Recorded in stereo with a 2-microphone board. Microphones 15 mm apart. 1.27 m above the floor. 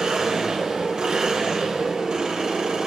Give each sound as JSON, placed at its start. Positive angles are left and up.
{"t": 0.0, "sound": "an engine running", "side_deg": -70, "distance_m": 3.5}